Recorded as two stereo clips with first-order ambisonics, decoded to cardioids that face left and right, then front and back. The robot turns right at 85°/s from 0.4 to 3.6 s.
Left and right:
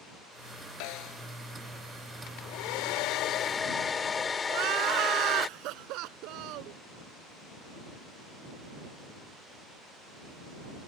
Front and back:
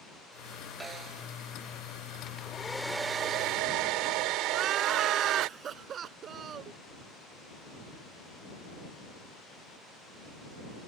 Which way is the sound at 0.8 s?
100° left.